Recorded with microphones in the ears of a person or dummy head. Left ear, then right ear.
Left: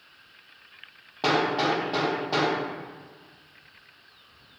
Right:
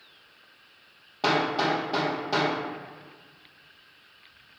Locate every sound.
1.2 s hammering: centre (ahead or behind), 0.9 m